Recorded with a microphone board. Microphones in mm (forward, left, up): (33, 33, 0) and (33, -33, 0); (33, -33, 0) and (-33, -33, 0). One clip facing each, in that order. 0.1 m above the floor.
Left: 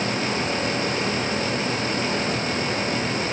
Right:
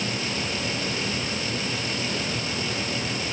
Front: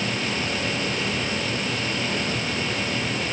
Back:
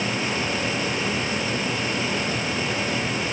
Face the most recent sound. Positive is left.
No sound to turn to.